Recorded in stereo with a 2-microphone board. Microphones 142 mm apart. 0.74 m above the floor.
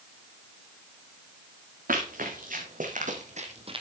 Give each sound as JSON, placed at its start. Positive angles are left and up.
{"t": 1.9, "sound": "running footsteps", "side_deg": -80, "distance_m": 4.0}